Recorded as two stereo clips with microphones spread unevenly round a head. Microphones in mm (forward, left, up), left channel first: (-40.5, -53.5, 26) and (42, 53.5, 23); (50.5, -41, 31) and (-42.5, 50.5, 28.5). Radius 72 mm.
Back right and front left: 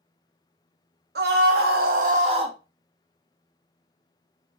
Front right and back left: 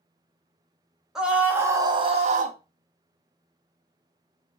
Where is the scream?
50° left, 1.1 m; by 2.6 s 115° left, 0.7 m.